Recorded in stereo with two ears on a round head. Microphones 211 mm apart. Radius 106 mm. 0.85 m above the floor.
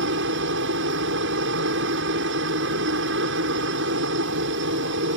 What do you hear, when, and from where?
0.0 s a helicopter: 60° right (ahead or behind)